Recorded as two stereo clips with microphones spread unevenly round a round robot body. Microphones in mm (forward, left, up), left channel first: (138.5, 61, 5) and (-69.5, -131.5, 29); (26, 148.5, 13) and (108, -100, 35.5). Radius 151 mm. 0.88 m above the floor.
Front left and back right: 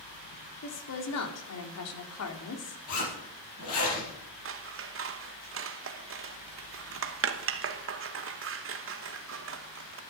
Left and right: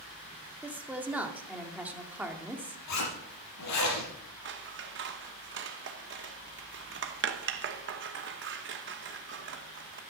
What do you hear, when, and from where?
0.6 s a woman speaking: 15° left, 2.5 m
2.9 s a zipper: 90° left, 5.5 m
4.5 s scissors: 110° right, 1.0 m